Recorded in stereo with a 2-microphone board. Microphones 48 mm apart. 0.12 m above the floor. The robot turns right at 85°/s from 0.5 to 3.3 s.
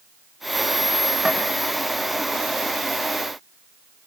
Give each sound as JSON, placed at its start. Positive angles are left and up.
{"t": 1.2, "sound": "tapping", "side_deg": -20, "distance_m": 5.0}